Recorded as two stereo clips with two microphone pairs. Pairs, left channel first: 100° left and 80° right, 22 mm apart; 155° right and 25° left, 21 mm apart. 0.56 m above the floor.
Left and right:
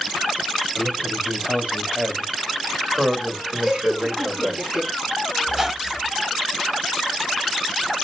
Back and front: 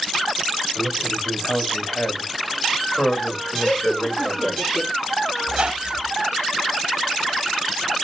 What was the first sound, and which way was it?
A man speaking, 130° right.